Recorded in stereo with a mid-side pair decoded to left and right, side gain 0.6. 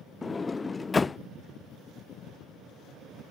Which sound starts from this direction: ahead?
A sliding door, at 0.2 s.